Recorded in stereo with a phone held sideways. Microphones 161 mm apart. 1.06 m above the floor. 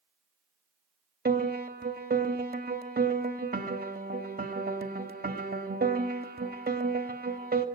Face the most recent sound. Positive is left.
turn(degrees=-80)